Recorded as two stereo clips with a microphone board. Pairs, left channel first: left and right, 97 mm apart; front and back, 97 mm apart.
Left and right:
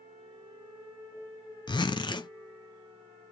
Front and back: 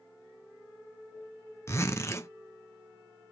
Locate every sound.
1.7 s a zipper: 60° left, 0.7 m